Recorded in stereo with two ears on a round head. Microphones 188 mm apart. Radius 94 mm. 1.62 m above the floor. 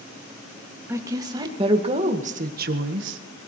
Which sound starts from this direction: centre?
A woman speaking, at 0.9 s.